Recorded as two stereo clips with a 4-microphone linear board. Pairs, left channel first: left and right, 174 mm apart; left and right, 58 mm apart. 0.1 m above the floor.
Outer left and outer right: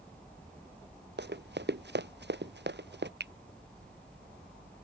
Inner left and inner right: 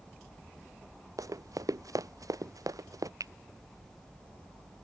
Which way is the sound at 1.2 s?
80° right.